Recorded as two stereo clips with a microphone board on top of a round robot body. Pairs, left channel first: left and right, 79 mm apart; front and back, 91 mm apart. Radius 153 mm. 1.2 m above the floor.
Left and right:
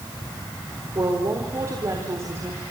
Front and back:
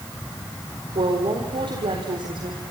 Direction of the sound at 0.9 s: 145° right.